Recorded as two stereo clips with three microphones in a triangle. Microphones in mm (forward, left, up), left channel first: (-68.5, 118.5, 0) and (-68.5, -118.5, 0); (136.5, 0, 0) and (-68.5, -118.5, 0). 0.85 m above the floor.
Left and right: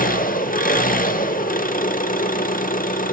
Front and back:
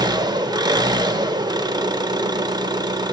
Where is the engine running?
140° left, 0.8 m.